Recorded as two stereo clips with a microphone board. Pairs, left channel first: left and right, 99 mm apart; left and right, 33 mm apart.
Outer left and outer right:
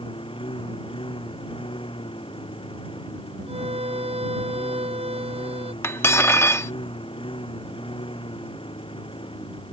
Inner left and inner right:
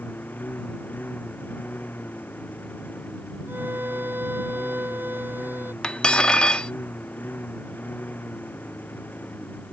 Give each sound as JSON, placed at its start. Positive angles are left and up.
{"t": 0.0, "sound": "a lawn mower", "side_deg": 65}
{"t": 3.5, "sound": "a violin", "side_deg": -85}
{"t": 5.8, "sound": "cutlery clinking", "side_deg": 25}